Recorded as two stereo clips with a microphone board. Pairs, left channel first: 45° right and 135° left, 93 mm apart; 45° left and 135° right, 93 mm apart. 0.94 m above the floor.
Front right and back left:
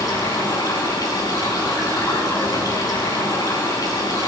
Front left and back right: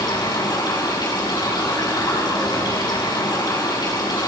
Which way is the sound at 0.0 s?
Straight ahead.